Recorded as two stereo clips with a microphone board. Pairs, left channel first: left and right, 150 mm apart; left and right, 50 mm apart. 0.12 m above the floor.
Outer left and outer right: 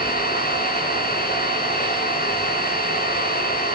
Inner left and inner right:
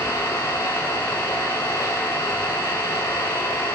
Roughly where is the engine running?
Left.